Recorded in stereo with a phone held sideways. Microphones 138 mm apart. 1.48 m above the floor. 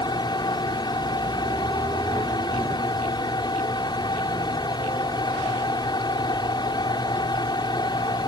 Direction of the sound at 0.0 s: 30° left (ahead or behind).